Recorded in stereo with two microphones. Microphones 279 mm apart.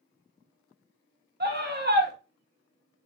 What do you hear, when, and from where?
1.4 s a scream: 35° right (ahead or behind), 1.2 m